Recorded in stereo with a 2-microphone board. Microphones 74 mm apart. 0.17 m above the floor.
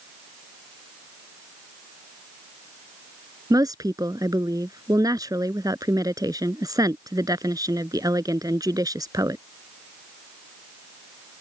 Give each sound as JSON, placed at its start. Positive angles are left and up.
{"t": 3.5, "sound": "a woman speaking", "side_deg": -60}